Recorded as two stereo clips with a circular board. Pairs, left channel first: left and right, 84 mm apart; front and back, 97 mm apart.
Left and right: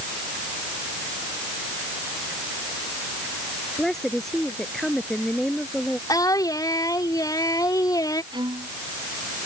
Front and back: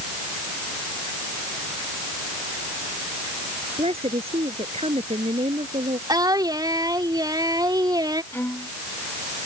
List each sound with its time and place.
3.8 s a woman speaking: 175° left
6.1 s singing: 130° left
8.3 s a violin: 70° right